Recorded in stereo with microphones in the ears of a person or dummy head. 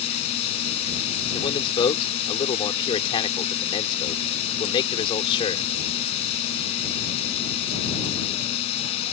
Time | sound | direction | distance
0.0 | a drone | 35° left (ahead or behind) | ?
1.3 | a man speaking | 25° left (ahead or behind) | ?